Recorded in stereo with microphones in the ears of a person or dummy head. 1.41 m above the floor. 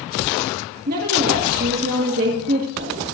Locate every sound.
0.9 s a woman speaking: 45° right (ahead or behind), 1.7 m